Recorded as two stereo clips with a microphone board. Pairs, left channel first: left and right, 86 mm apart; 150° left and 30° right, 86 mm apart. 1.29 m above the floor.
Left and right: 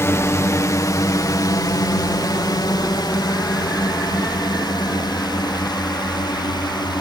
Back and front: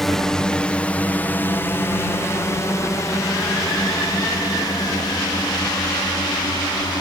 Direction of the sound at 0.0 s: 65° left.